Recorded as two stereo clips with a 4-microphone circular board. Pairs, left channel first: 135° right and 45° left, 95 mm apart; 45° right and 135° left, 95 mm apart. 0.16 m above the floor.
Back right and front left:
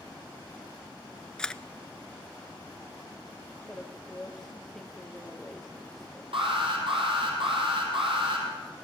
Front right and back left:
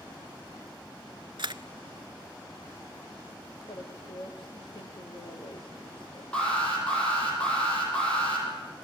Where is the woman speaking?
50° right, 4 m.